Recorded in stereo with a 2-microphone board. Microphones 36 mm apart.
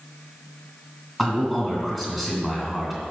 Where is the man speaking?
10° left (ahead or behind), 1.9 m.